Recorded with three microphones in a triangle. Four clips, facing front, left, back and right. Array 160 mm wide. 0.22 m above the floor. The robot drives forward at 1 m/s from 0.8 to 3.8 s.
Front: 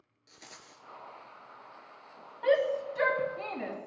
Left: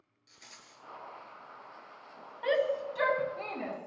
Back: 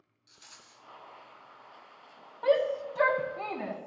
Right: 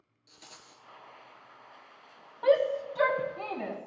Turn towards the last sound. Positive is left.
turn(degrees=-165)